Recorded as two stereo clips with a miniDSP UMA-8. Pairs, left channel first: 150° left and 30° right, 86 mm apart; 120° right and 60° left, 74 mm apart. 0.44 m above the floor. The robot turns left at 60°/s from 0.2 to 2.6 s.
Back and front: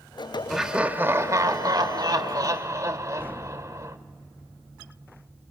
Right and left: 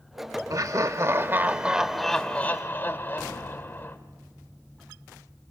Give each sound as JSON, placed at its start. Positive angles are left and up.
{"t": 0.5, "sound": "laughter", "azimuth_deg": 60, "distance_m": 1.2}